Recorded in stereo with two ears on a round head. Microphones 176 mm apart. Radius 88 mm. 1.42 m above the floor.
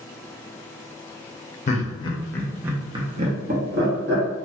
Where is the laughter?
40° left (ahead or behind), 0.9 m; by 4.2 s 65° right (ahead or behind), 1.2 m.